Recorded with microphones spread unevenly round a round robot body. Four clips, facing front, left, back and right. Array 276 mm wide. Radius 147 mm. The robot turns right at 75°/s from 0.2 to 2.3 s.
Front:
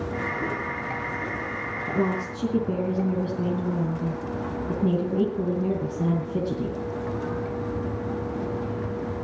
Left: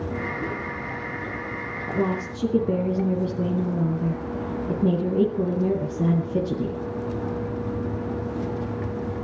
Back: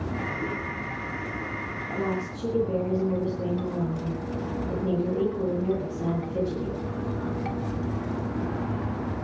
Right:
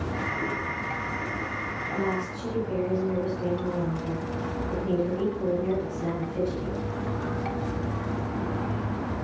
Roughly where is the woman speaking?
Ahead left.